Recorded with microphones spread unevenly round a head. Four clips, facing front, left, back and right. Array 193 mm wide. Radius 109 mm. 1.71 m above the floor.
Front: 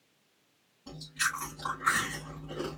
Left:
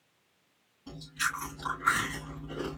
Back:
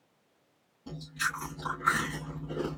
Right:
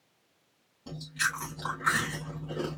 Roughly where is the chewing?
Behind right.